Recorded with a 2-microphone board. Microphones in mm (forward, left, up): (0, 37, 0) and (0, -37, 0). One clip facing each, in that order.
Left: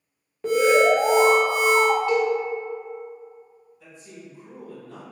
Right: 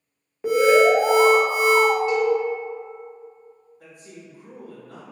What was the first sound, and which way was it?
An alarm, 10° right (ahead or behind).